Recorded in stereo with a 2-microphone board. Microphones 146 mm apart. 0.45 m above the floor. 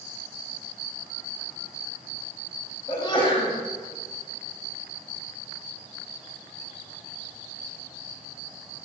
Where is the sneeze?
30° left (ahead or behind), 3 m.